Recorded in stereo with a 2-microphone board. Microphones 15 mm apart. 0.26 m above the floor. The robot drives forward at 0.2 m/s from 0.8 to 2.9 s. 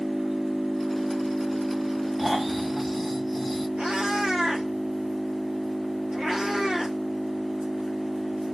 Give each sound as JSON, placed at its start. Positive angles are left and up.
{"t": 0.0, "sound": "an engine running", "side_deg": -70, "distance_m": 1.3}
{"t": 2.2, "sound": "snoring", "side_deg": -10, "distance_m": 1.7}
{"t": 3.8, "sound": "a cat meowing", "side_deg": -80, "distance_m": 1.7}